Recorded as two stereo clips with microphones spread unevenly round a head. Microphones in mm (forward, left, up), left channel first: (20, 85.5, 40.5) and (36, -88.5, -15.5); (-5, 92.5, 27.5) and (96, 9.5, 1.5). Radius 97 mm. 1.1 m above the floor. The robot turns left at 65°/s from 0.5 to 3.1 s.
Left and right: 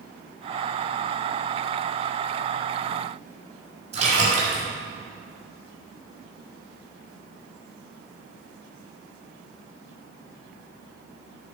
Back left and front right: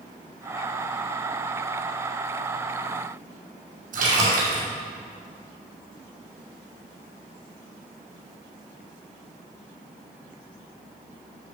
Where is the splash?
30° right, 6 m.